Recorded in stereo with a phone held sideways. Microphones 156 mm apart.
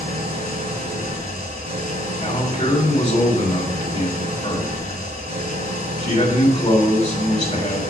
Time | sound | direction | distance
0.0 | an engine running | 75° right (ahead or behind) | 3 m
2.2 | a man speaking | 35° left (ahead or behind) | 2.5 m